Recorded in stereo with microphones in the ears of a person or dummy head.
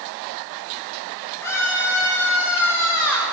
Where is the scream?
15° left (ahead or behind), 9.5 m; by 3.3 s 10° left (ahead or behind), 8 m.